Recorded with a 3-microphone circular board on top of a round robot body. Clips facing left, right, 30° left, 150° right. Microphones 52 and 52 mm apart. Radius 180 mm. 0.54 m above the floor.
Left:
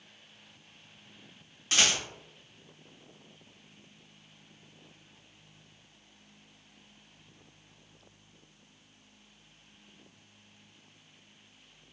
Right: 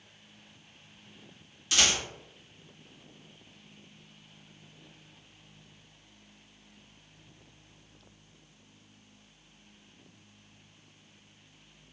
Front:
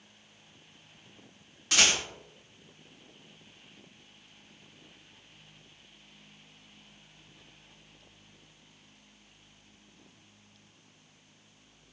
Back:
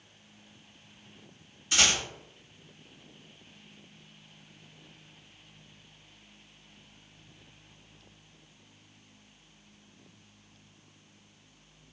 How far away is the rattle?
About 1.2 m.